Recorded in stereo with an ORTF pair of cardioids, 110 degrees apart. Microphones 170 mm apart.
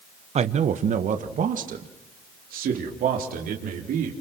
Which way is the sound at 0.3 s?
40° right.